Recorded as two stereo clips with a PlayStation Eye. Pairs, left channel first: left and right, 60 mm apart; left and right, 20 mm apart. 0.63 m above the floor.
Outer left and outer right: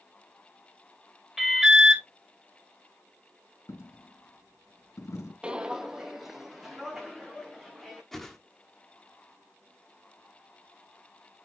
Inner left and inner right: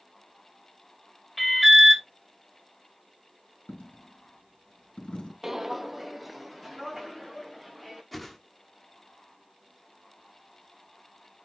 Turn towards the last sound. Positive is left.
turn(degrees=5)  # may be behind; listen again after turning